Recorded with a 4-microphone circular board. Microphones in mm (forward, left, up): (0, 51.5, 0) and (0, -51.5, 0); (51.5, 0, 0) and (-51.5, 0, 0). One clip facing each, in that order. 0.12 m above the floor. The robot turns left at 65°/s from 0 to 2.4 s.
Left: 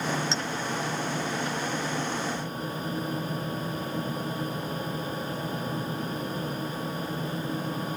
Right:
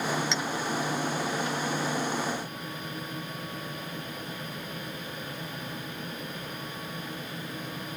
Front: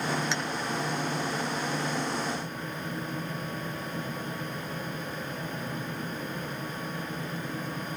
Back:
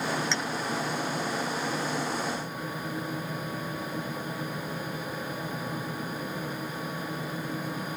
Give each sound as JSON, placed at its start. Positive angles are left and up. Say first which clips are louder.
{"t": 0.3, "sound": "a clink", "louder": "even, even", "azimuth_deg": 65}